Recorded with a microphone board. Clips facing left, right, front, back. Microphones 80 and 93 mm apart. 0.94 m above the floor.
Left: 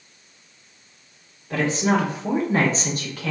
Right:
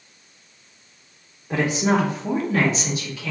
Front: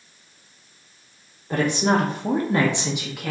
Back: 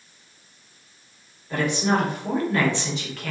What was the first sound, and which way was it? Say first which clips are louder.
A woman speaking: right 1 dB, front 2 dB; 30° right.